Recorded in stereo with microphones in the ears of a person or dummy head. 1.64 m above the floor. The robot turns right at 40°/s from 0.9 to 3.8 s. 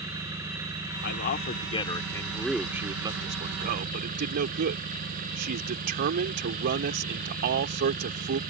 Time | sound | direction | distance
0.0 | an engine running | 165° right | ?
1.0 | a man speaking | 120° left | ?